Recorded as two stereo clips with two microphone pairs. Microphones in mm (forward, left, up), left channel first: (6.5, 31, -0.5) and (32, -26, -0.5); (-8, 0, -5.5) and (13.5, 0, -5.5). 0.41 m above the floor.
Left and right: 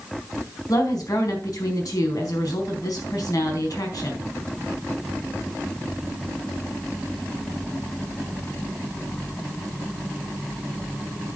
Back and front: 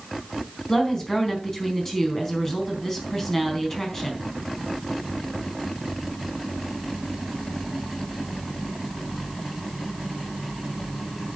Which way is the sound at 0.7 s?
115° left.